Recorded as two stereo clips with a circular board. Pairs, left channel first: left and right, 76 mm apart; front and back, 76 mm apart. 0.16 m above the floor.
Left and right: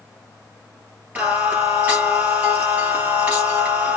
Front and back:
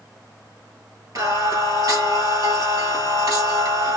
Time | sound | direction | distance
1.1 | singing | 155° right | 1.8 m